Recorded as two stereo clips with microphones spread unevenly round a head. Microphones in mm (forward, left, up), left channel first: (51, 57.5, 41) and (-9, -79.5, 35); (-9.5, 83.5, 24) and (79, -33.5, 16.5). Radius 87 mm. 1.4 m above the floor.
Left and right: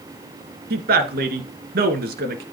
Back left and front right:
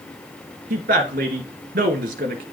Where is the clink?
I don't hear a clink.